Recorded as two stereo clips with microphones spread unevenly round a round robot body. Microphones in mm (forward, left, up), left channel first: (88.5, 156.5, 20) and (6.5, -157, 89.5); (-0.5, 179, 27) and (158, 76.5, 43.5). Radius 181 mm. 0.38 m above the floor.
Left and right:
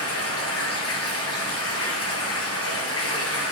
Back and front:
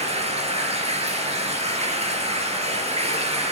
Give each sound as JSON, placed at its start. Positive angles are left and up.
{"t": 0.0, "sound": "running water", "azimuth_deg": 25, "distance_m": 1.7}